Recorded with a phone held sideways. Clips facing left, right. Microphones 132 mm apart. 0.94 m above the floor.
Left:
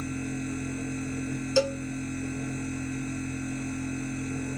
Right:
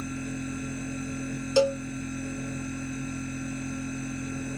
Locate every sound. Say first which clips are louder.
0.0 s a machine running: left 1 dB; 45° left (ahead or behind), 1.3 m
1.6 s a cowbell: right 3 dB; 20° right (ahead or behind), 0.7 m